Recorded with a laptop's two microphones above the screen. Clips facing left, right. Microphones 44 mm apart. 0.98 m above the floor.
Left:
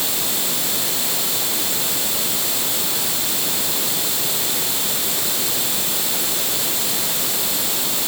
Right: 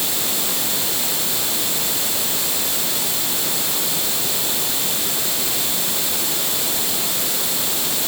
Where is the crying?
I don't hear crying.